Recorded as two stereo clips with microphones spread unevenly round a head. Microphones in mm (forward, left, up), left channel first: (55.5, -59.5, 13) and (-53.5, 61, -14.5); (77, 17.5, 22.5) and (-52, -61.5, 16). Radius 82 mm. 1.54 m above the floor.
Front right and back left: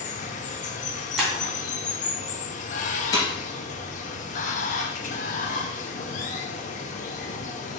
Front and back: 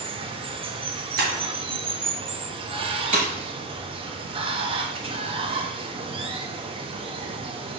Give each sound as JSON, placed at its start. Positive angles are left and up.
{"t": 0.0, "sound": "running water", "azimuth_deg": -90, "distance_m": 0.8}
{"t": 1.2, "sound": "breaking glass", "azimuth_deg": -135, "distance_m": 2.5}
{"t": 3.1, "sound": "breaking glass", "azimuth_deg": -110, "distance_m": 3.5}